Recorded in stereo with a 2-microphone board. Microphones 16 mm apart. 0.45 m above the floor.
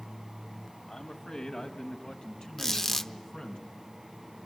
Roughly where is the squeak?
Left.